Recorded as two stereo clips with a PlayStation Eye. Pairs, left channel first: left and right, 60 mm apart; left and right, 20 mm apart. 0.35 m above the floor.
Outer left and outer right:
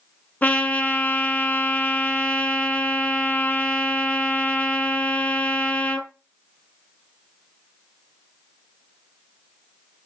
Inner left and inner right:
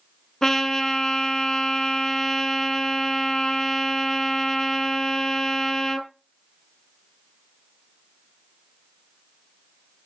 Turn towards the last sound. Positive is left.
turn(degrees=20)  # may be behind; listen again after turning